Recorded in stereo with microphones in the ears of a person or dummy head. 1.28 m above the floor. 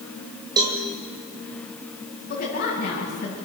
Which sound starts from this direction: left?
A woman speaking, at 2.3 s.